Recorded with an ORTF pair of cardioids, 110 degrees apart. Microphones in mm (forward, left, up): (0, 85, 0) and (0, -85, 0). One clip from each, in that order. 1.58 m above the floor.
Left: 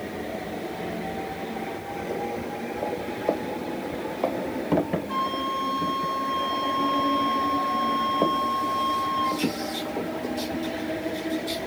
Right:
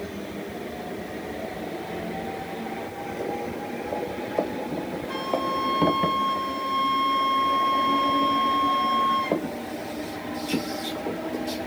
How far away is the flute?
About 3.5 m.